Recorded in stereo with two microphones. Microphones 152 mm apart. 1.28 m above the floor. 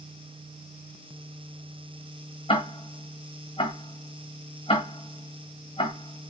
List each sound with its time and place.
2.5 s ticking: 35° left (ahead or behind), 1.2 m